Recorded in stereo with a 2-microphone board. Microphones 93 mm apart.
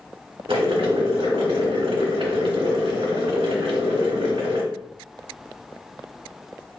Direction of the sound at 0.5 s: 75° right (ahead or behind).